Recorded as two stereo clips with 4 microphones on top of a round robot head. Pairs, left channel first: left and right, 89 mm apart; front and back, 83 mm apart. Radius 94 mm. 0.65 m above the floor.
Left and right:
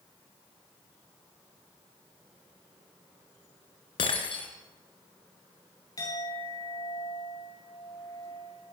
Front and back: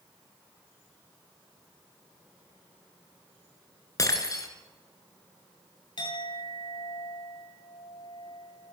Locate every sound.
4.0 s breaking glass: 45° left, 4 m
6.0 s a clink: 30° left, 8 m